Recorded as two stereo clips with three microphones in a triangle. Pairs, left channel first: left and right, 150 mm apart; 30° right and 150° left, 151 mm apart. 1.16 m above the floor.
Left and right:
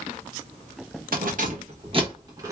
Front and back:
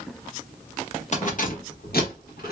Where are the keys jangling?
70° right, 0.9 m; by 2.5 s 20° right, 1.1 m.